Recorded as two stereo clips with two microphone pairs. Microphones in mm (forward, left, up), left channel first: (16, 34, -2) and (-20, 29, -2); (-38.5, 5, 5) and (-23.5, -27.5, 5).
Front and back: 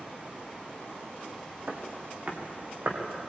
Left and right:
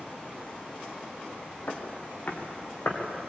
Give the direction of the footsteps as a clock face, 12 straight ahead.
7 o'clock.